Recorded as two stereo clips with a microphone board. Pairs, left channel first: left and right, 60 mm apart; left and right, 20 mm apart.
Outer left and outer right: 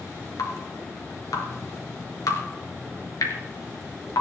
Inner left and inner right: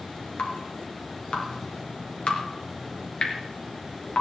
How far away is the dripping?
About 3 m.